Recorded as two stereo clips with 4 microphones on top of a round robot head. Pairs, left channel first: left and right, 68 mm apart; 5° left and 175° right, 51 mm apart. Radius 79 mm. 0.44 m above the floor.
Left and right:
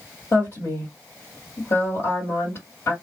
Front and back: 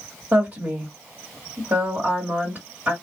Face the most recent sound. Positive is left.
turn(degrees=140)